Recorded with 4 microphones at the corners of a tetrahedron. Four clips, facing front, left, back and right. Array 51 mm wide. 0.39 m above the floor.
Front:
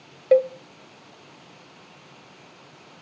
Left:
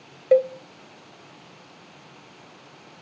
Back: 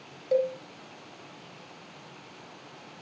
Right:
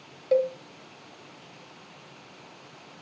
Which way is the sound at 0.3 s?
35° left.